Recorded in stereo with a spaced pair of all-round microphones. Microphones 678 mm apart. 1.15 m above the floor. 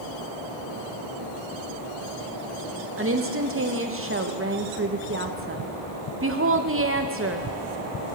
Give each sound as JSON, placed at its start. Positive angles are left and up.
{"t": 3.0, "sound": "a woman speaking", "side_deg": -20, "distance_m": 0.7}